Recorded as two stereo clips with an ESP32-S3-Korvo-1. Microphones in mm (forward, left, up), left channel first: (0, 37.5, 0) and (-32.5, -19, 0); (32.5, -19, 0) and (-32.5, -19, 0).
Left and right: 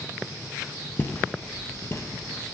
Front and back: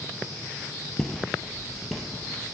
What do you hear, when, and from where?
1.0 s footsteps: 80° left, 0.9 m; by 2.5 s 95° left, 1.5 m